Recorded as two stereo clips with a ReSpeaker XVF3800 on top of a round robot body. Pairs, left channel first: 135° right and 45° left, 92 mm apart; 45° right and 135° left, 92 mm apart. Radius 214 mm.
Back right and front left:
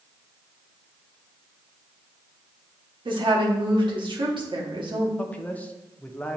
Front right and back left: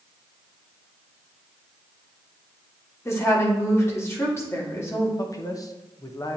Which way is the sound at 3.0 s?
15° left.